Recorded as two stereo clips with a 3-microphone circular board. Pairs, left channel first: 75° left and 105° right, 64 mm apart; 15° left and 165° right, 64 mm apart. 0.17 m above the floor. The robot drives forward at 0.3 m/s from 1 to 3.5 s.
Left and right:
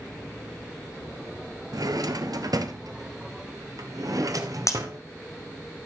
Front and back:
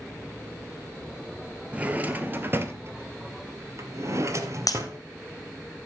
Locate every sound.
1.7 s a drawer: 95° right, 0.9 m; by 5.0 s 125° right, 1.1 m
4.7 s breaking glass: 40° left, 1.6 m